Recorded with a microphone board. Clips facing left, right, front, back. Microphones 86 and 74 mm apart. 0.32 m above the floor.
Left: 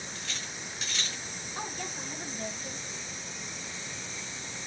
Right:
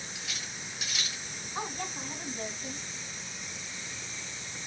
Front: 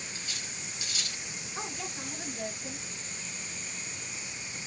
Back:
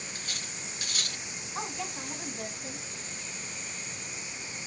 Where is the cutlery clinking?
170° right, 0.7 m.